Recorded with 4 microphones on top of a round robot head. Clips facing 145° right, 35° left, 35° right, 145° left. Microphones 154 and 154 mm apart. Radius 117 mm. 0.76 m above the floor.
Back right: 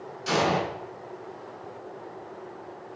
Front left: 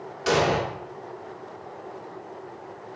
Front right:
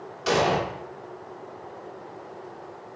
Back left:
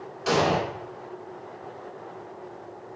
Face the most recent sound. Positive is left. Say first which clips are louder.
# front left 3 dB, even
turn(degrees=60)